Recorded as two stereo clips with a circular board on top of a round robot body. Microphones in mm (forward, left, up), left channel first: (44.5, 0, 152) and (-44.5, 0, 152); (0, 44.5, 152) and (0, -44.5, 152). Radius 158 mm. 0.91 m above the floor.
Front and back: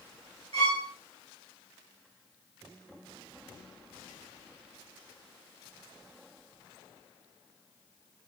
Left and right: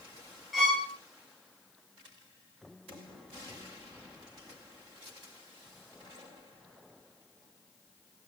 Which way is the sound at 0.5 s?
Straight behind.